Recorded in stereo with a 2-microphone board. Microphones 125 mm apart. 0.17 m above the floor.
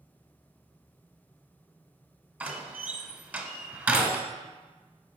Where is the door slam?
15° right (ahead or behind), 1.0 m.